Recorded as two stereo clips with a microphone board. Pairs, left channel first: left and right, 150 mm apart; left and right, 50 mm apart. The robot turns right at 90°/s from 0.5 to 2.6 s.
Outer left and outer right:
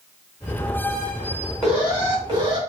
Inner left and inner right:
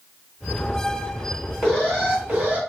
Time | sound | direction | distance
1.6 | an alarm | straight behind | 1.9 m